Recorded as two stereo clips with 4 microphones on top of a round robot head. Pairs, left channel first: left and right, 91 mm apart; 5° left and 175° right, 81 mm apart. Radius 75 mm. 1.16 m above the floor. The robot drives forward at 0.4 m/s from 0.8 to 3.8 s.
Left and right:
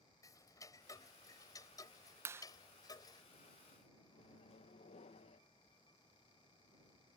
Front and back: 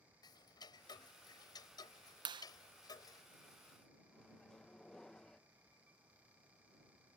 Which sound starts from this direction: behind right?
A clap, at 2.2 s.